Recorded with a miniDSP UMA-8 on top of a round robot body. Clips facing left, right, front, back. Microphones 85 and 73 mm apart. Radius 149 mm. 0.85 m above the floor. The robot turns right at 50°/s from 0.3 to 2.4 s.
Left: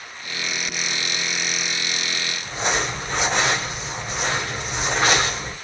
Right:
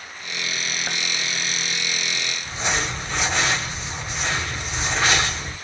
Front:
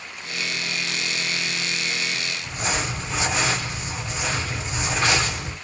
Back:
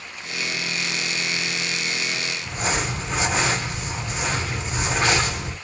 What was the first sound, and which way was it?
Crumpling, 140° left.